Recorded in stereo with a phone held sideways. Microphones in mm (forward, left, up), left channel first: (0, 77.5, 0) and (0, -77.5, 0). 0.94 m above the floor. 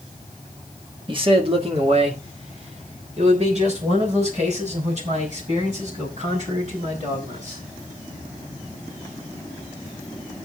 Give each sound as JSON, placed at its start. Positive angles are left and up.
{"t": 1.1, "sound": "a man speaking", "side_deg": -35, "distance_m": 1.3}